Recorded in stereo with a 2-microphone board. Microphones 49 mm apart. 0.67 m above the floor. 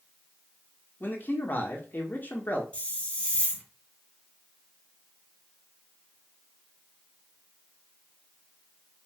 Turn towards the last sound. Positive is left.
turn(degrees=25)  # may be behind; listen again after turning